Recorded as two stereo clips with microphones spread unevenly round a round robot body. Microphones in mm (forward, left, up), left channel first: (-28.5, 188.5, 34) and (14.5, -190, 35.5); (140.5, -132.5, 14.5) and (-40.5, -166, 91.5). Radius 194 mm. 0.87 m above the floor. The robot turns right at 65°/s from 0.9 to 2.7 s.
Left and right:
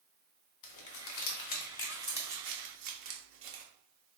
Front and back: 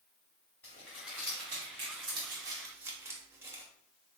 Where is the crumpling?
115° left, 0.7 m; by 3.6 s 130° right, 0.7 m.